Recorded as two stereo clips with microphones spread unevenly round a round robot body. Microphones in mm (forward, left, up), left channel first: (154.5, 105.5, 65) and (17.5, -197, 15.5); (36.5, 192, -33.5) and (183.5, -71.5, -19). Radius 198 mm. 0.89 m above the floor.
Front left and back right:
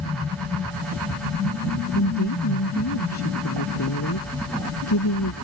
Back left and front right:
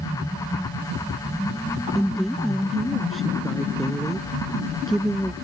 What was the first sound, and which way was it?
A woman speaking, 30° left.